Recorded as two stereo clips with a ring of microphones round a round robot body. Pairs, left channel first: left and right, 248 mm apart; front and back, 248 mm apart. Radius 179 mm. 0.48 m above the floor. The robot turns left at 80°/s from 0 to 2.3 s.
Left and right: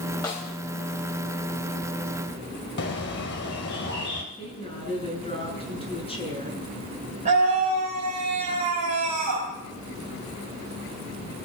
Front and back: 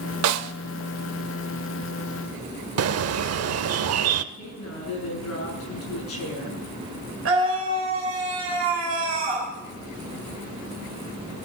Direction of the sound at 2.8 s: 150° left.